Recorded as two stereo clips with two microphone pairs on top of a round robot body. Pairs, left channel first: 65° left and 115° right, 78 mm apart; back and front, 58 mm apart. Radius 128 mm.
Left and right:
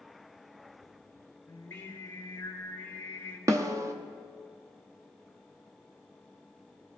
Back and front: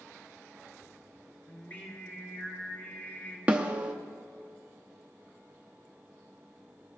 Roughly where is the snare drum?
Ahead right.